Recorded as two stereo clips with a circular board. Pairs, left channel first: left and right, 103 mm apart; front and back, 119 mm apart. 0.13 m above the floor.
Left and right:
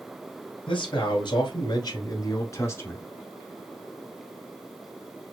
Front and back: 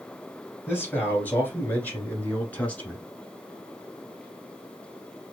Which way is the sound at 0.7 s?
70° left.